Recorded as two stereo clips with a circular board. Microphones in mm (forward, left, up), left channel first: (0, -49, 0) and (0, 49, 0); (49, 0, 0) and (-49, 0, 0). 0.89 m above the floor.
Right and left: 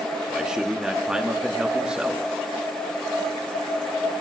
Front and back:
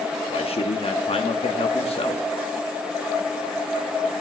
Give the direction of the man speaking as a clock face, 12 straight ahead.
12 o'clock.